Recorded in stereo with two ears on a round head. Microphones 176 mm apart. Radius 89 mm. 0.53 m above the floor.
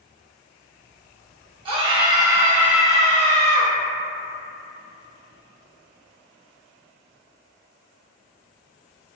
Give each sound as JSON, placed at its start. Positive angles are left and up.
{"t": 1.6, "sound": "a scream", "side_deg": -25, "distance_m": 0.9}